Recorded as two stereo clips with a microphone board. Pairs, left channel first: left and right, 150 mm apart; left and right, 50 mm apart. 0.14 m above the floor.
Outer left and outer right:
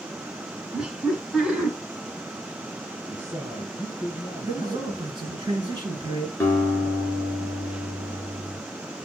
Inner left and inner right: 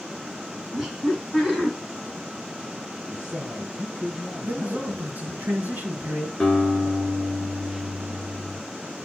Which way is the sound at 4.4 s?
30° right (ahead or behind).